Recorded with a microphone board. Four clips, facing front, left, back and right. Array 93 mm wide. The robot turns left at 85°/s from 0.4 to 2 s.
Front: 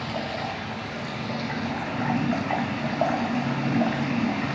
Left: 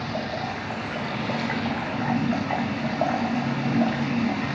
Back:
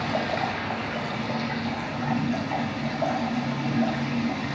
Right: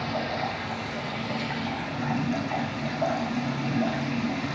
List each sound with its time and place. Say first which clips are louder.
0.0 s running water: even, back 4 dB; 175° left, 4.5 m; by 4.5 s 40° left, 4.5 m